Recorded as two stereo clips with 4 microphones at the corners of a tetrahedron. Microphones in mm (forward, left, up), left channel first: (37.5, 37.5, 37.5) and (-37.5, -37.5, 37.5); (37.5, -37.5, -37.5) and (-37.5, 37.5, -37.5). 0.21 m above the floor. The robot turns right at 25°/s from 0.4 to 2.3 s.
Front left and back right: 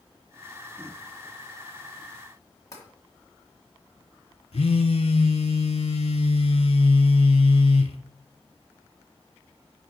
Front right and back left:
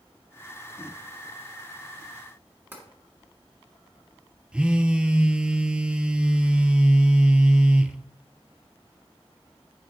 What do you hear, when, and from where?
2.7 s tapping: 75° left, 1.7 m
4.5 s a phone buzzing: 55° left, 0.5 m